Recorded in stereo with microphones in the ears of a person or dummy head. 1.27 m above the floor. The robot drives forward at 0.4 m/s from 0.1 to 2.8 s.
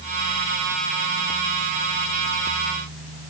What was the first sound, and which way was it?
Only background noise.